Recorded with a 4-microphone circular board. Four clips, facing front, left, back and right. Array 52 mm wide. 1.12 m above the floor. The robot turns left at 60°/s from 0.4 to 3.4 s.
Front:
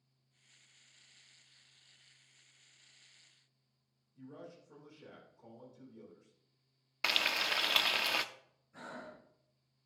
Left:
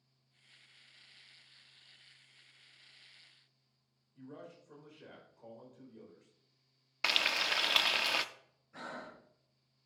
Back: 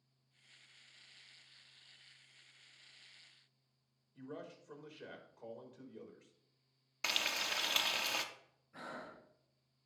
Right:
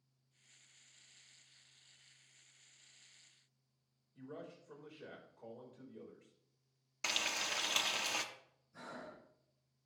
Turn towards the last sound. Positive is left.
turn(degrees=110)